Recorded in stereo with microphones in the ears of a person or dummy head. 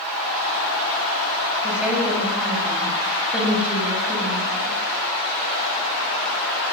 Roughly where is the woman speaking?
Centre.